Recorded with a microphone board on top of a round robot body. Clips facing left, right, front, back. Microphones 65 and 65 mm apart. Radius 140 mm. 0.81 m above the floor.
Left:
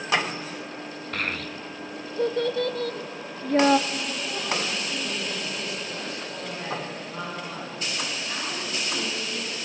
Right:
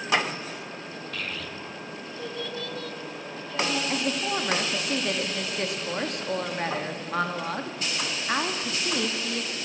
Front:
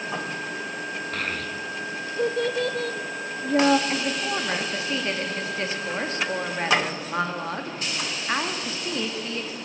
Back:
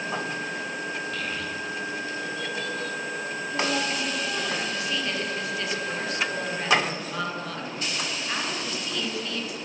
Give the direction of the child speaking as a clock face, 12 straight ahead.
11 o'clock.